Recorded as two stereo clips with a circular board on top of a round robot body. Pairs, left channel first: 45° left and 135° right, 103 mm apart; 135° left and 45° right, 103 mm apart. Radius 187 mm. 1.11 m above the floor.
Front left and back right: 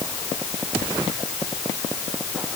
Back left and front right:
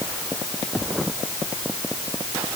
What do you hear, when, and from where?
Only background noise.